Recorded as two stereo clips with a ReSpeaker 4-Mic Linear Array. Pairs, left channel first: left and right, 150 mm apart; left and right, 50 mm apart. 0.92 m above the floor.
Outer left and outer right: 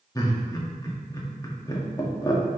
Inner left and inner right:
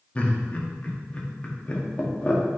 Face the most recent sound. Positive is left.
turn(degrees=25)  # may be behind; listen again after turning